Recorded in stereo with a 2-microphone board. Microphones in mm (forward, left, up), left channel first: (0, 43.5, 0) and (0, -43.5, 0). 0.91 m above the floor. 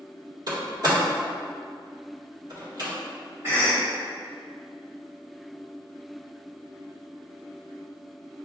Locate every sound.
0.5 s a door slam: 55° right (ahead or behind), 1.5 m
3.4 s a cough: 35° right (ahead or behind), 1.3 m